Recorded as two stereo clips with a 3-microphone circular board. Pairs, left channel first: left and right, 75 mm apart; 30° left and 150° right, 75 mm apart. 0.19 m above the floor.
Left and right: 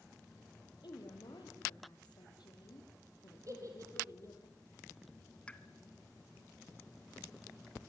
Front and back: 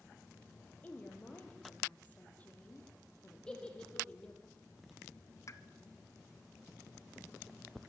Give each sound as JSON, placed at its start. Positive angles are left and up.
{"t": 0.8, "sound": "a woman speaking", "azimuth_deg": 95, "distance_m": 6.5}
{"t": 3.5, "sound": "a giggle", "azimuth_deg": -45, "distance_m": 5.5}
{"t": 5.5, "sound": "a pop", "azimuth_deg": 25, "distance_m": 1.2}